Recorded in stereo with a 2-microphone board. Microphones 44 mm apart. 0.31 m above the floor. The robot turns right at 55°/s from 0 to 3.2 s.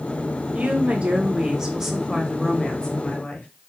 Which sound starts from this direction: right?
A woman speaking, at 0.5 s.